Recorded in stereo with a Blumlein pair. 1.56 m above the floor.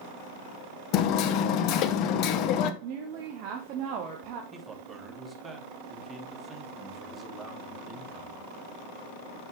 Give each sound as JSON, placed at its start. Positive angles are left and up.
{"t": 0.9, "sound": "hammering", "azimuth_deg": 40, "distance_m": 0.9}
{"t": 2.8, "sound": "a woman speaking", "azimuth_deg": -40, "distance_m": 1.5}
{"t": 4.5, "sound": "a man speaking", "azimuth_deg": -10, "distance_m": 3.0}